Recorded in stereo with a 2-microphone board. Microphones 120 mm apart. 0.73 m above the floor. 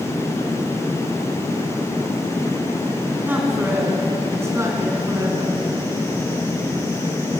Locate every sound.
3.2 s a man speaking: 15° right (ahead or behind), 6 m; by 5.6 s 30° right (ahead or behind), 7 m